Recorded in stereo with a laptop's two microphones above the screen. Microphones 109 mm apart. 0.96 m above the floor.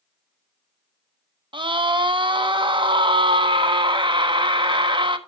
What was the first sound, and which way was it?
A scream, 50° right (ahead or behind).